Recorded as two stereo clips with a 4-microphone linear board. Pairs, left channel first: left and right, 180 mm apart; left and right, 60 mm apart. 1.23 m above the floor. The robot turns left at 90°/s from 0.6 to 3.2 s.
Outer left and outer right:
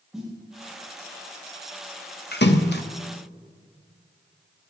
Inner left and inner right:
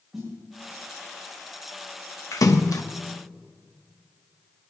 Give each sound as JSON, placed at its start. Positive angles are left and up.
{"t": 0.1, "sound": "a snare drum", "side_deg": -5, "distance_m": 7.5}
{"t": 2.3, "sound": "a splash", "side_deg": 65, "distance_m": 0.9}